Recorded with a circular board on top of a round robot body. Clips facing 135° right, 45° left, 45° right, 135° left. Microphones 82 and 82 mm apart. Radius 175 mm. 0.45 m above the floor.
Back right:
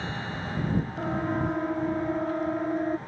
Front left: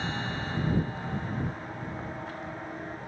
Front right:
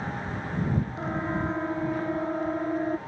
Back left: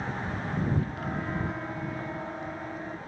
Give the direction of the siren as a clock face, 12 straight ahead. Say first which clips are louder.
Back right 6 dB, front right 3 dB; 4 o'clock.